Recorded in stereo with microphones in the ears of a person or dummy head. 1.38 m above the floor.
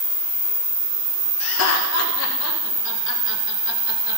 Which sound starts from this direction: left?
Laughter, at 1.4 s.